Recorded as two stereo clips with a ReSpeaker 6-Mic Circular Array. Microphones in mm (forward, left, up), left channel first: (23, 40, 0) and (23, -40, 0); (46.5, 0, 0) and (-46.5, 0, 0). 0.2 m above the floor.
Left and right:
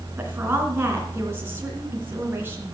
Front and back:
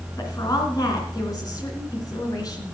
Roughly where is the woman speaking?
Ahead right.